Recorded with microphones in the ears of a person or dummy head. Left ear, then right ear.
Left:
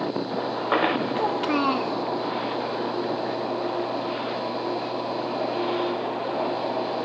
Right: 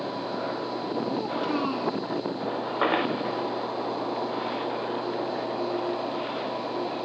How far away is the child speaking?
About 0.6 m.